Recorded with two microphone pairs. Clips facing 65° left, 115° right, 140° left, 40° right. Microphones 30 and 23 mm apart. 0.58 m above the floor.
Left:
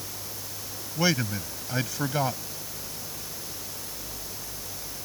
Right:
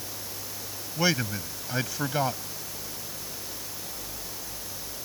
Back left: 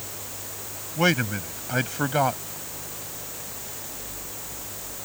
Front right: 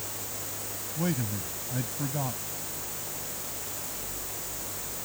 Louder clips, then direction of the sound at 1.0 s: Even, back left 9 dB; 160° left.